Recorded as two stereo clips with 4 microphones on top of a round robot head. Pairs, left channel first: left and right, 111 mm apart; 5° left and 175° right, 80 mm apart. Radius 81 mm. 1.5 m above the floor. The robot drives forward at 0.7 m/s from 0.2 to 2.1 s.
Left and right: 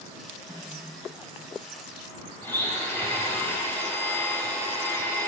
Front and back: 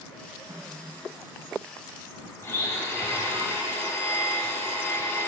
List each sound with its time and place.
0.5 s a snare drum: 165° right, 4 m
2.4 s a blender: 35° left, 1.5 m